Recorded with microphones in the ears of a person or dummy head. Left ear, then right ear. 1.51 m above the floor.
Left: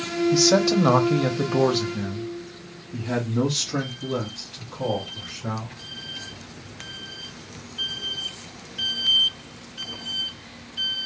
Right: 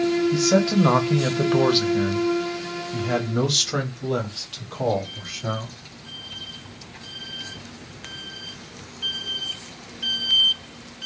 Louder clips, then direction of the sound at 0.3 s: Left 6 dB; 30° left (ahead or behind).